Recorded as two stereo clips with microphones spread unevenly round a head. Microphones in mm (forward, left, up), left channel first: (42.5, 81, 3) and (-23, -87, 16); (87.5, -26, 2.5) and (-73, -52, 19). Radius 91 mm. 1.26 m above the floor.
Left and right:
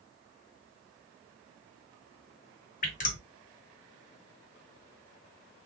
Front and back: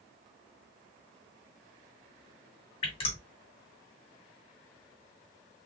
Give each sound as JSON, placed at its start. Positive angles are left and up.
{"t": 2.8, "sound": "dripping", "azimuth_deg": 55, "distance_m": 1.2}